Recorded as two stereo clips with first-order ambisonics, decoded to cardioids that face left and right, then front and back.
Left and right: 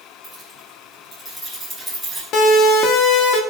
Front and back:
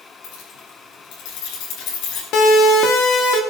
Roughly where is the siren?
Ahead left.